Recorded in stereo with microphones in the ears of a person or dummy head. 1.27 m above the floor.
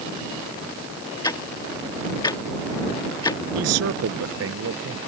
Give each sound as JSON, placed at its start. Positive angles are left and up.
{"t": 1.2, "sound": "ticking", "side_deg": 20}
{"t": 3.5, "sound": "a man speaking", "side_deg": -85}